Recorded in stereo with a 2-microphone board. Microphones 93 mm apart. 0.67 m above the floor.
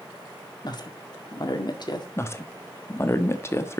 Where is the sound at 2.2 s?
30° left (ahead or behind), 1.1 m.